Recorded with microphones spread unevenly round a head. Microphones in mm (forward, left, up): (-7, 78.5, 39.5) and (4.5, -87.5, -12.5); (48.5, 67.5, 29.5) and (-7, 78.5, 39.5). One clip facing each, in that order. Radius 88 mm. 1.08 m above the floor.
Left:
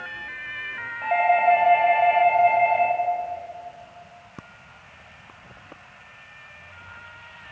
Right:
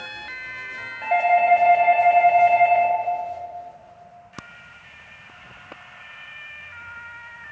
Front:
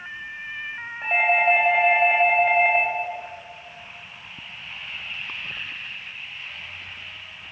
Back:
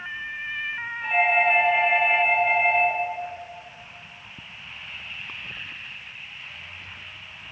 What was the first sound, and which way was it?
A doorbell, 25° right.